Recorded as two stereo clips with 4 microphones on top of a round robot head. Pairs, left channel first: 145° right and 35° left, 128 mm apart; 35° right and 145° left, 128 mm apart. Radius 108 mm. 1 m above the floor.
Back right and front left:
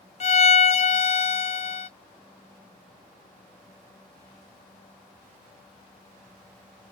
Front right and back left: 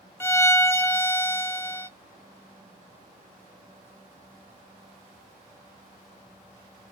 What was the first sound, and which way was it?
A violin, 110° right.